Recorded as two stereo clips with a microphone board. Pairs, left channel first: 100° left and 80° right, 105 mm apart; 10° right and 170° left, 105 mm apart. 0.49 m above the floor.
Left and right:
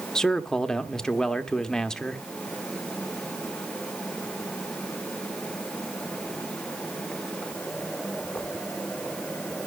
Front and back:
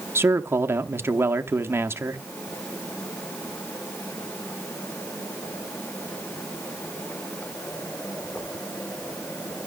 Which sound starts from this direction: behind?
A man speaking, at 0.1 s.